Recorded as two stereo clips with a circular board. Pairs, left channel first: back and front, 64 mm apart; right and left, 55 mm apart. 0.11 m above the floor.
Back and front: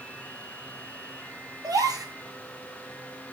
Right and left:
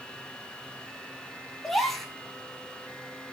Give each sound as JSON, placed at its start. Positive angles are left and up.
{"t": 1.6, "sound": "a gasp", "azimuth_deg": -5, "distance_m": 0.6}